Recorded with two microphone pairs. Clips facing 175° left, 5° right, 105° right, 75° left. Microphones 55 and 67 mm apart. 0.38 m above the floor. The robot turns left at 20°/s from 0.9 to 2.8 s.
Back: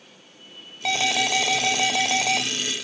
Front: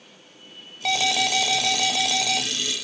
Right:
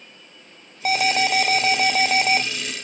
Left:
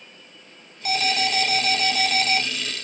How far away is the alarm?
About 1.0 m.